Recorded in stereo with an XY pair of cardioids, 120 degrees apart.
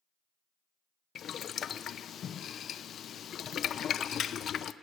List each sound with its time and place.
1.1 s boiling: 50° left, 0.5 m